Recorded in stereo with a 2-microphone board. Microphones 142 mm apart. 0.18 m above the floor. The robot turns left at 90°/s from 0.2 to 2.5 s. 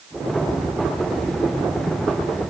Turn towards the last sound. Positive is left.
No sound to turn to.